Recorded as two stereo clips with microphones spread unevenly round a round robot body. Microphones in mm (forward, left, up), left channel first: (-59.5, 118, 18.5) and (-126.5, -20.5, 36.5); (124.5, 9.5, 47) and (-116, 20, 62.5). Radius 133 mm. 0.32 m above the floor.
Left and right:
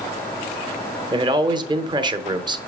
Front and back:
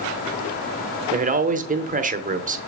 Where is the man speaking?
160° right, 1.0 m.